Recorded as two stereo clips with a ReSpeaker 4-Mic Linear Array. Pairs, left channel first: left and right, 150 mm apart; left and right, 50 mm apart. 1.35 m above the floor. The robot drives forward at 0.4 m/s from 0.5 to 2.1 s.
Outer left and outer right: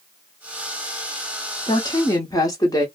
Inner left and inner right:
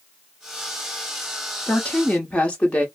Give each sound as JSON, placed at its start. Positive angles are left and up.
{"t": 1.7, "sound": "a woman speaking", "side_deg": 30, "distance_m": 0.8}